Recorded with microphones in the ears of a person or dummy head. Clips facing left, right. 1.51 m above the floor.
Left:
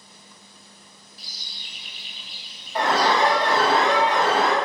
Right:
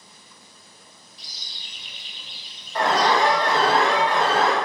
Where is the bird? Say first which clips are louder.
Left 1 dB; 5° left (ahead or behind), 0.6 m.